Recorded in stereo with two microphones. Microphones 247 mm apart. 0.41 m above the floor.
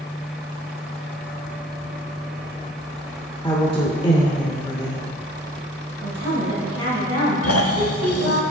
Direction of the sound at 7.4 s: 70° left (ahead or behind).